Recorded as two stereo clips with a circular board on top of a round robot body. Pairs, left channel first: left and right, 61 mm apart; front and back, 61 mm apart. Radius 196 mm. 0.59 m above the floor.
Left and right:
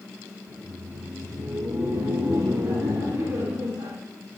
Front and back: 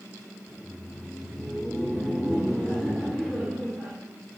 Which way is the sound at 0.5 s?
85° right.